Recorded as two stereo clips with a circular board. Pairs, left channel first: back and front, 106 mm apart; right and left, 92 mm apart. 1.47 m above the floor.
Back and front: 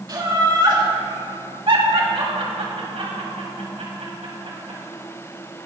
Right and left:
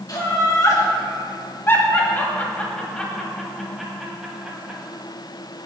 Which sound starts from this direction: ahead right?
Laughter, at 0.1 s.